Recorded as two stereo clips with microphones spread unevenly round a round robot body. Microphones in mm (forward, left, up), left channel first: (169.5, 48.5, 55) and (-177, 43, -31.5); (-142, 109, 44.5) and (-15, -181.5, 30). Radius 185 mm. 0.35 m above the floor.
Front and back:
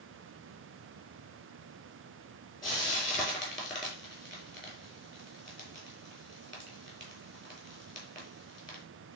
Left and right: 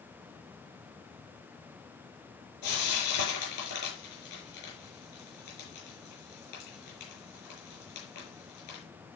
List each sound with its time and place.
2.6 s frying: 80° left, 6.5 m